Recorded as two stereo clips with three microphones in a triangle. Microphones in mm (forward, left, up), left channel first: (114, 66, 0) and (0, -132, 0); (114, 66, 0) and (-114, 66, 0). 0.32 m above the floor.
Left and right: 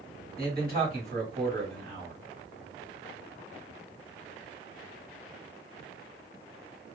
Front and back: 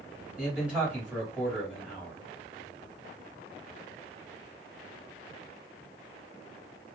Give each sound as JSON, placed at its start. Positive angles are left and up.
{"t": 0.4, "sound": "a man speaking", "azimuth_deg": -95, "distance_m": 1.8}